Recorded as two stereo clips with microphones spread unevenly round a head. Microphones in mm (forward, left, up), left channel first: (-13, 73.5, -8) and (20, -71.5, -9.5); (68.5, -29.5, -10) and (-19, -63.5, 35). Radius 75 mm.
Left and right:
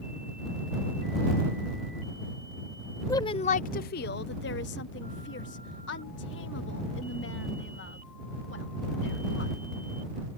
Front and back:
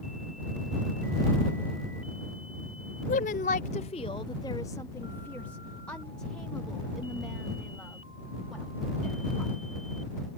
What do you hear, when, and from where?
3.1 s a woman speaking: 30° left; by 9.6 s 115° left